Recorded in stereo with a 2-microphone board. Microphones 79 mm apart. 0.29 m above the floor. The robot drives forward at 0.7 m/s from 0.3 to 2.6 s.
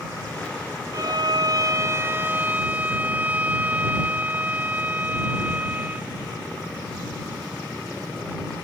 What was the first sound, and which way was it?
A violin, 45° right (ahead or behind).